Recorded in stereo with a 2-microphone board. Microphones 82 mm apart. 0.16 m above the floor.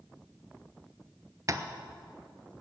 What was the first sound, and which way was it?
Tapping, 45° right (ahead or behind).